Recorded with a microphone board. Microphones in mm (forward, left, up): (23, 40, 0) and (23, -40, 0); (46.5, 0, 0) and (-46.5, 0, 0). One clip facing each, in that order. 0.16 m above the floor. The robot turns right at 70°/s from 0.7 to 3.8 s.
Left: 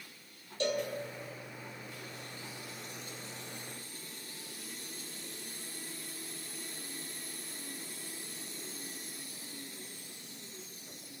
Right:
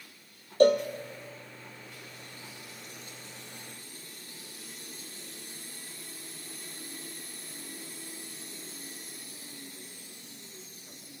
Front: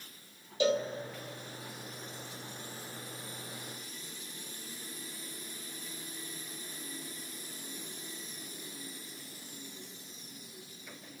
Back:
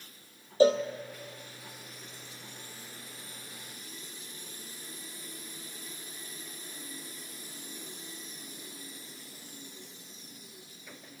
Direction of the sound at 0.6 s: 125° right.